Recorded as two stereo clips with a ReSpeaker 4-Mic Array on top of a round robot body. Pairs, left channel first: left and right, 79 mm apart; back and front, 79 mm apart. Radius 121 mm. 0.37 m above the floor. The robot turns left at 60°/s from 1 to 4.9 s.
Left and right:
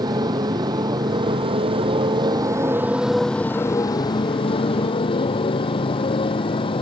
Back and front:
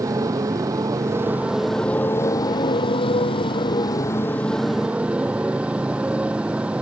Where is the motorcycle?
50° right; by 6.8 s 75° left.